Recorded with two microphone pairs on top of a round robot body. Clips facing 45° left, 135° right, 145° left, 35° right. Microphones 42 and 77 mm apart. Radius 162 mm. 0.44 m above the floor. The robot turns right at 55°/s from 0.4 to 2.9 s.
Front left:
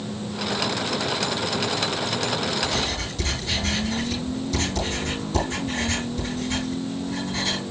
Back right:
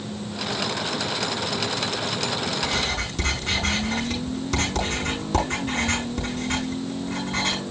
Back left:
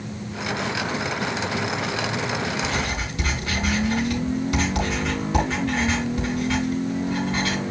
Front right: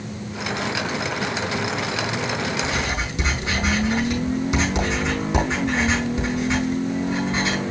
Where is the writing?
120° right, 8.5 m; by 7.6 s 105° right, 8.5 m.